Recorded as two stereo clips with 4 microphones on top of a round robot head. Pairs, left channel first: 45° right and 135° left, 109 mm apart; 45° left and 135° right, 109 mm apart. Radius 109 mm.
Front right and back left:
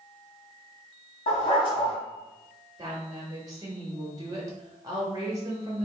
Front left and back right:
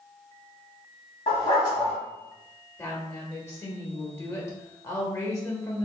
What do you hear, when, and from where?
1.3 s a dog barking: 5° right, 1.3 m
2.8 s a woman speaking: 100° left, 1.4 m